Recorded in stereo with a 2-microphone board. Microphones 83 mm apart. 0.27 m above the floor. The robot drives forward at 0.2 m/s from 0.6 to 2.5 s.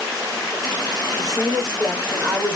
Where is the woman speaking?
40° right (ahead or behind), 2.0 m.